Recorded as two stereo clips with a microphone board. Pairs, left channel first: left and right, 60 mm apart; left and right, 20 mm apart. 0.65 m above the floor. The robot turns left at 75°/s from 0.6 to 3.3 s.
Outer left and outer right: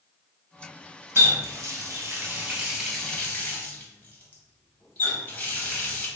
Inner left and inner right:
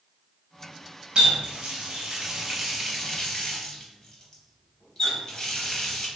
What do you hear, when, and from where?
1.1 s a running tap: 45° right (ahead or behind), 0.8 m; by 6.1 s 30° left (ahead or behind), 0.8 m